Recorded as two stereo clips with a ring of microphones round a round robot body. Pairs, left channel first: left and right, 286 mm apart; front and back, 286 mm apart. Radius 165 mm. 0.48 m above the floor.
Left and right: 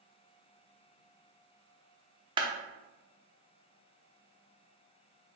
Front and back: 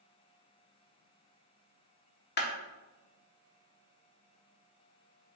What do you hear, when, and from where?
2.4 s a clap: 25° right, 0.9 m